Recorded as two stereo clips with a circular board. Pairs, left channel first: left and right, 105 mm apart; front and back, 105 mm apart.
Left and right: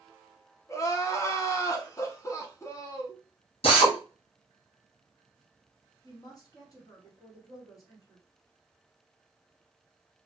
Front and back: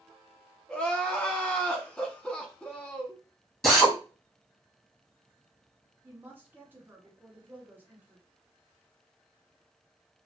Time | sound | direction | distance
0.7 | crying | 70° left | 0.7 m
3.6 | a drill | 85° left | 1.5 m
6.0 | a woman speaking | 115° left | 1.3 m